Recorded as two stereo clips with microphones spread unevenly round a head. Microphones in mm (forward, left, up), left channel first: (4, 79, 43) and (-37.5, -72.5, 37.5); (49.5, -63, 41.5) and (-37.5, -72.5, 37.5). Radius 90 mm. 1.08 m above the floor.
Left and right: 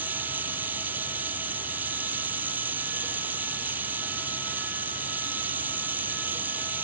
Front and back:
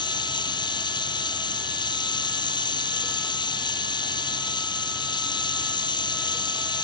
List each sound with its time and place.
0.0 s running water: 25° right